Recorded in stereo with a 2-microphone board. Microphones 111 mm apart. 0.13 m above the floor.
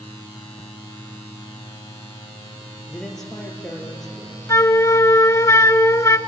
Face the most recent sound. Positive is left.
turn(degrees=30)  # may be behind; listen again after turning